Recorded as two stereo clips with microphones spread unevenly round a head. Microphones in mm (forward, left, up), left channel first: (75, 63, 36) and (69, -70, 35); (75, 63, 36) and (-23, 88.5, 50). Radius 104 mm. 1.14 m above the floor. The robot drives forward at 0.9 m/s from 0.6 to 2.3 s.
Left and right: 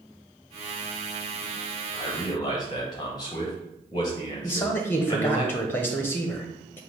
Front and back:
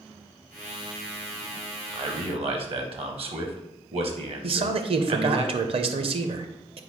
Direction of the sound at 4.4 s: 160° left.